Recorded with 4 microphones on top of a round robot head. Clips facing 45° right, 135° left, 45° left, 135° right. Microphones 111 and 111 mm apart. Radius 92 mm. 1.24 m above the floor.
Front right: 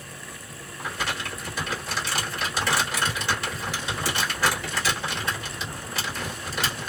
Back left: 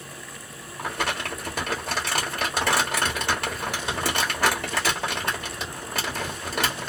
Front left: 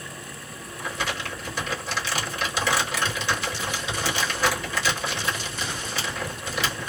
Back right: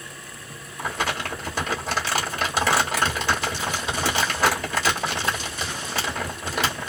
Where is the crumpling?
175° left, 1.2 m.